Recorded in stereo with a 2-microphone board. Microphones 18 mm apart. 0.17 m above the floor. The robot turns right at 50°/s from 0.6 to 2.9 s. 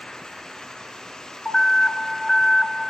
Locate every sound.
1.4 s an alarm: 80° left, 1.3 m; by 2.8 s 150° left, 1.3 m